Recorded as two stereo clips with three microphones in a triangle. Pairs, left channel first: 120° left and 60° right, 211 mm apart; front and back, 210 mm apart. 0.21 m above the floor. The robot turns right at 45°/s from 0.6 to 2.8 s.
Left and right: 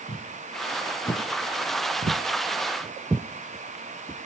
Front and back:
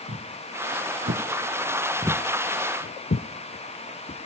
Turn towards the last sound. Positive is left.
turn(degrees=50)